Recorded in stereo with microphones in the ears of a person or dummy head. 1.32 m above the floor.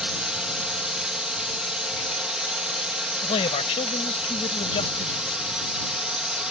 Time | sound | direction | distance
0.0 | a drone | 5° right (ahead or behind) | ?
3.2 | a man speaking | 30° left (ahead or behind) | ?